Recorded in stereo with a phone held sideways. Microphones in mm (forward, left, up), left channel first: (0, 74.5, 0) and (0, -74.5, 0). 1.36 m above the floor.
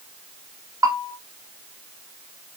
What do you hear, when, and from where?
0.8 s a bell: 25° right (ahead or behind), 1.1 m